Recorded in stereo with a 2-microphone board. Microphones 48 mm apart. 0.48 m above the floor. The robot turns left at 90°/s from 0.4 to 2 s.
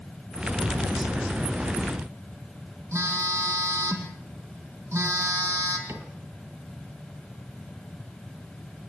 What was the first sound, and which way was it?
A phone buzzing, 75° right (ahead or behind).